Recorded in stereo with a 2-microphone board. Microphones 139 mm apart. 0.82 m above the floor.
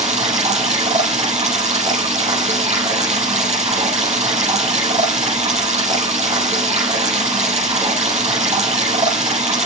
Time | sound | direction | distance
0.0 | running water | 50° right (ahead or behind) | 5.5 m